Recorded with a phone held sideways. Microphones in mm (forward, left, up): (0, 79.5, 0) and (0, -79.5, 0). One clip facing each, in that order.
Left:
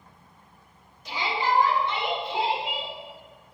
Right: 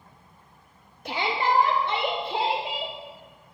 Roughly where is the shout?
Right.